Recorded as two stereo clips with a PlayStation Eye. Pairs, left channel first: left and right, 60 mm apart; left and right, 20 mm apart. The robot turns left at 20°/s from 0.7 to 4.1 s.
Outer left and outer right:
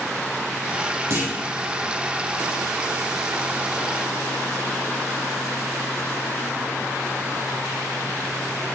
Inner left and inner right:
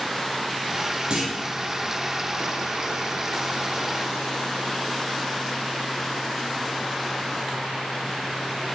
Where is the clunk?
45° right (ahead or behind), 2.5 m.